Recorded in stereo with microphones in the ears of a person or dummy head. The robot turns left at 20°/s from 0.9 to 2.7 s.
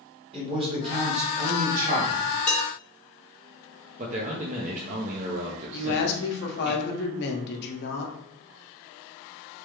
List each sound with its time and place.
0.3 s a man speaking: 30° right (ahead or behind), 1.9 m; by 2.3 s 60° right (ahead or behind), 1.9 m
2.5 s dishes clattering: 5° left (ahead or behind), 1.1 m
4.0 s a man speaking: 40° right (ahead or behind), 0.6 m
5.7 s a woman speaking: 60° left (ahead or behind), 0.9 m